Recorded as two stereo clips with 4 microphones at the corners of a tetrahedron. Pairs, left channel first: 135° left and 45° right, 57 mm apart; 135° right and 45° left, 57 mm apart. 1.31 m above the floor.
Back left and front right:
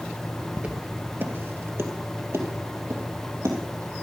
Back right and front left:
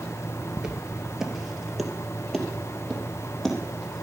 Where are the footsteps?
25° right, 1.4 m; by 4.0 s 50° right, 3 m.